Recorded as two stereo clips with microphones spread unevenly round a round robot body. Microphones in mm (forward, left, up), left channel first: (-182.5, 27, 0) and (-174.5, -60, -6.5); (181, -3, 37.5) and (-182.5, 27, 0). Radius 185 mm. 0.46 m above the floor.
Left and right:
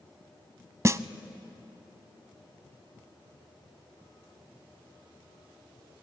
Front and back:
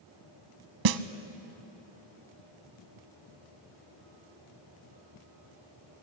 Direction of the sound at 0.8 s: 145° right.